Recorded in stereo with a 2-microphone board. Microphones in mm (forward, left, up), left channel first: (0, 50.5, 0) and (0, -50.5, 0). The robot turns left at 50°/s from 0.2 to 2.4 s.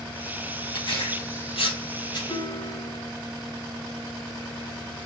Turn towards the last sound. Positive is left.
turn(degrees=50)  # may be behind; listen again after turning